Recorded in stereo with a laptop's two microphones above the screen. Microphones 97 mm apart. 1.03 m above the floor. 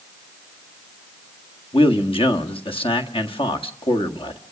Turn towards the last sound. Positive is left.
turn(degrees=65)  # may be behind; listen again after turning